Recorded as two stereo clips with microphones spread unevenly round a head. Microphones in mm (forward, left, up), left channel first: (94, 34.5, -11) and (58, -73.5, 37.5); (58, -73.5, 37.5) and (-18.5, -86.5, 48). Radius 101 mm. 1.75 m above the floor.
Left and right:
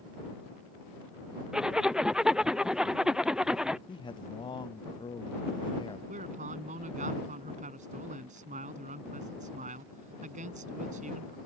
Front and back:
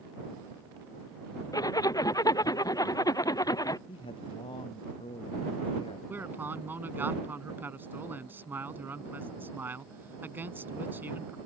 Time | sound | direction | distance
1.5 | a zipper | 35° right | ?
3.9 | a man speaking | 25° left | ?
6.1 | a man speaking | 105° right | ?